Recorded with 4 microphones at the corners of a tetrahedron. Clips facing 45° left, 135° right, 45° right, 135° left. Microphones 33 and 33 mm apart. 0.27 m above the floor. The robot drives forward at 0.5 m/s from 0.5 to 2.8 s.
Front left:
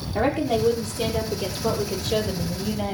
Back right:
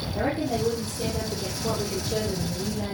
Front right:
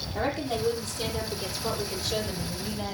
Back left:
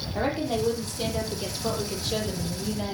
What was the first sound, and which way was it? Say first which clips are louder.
A woman speaking: front left 5 dB, back left 2 dB; 55° left.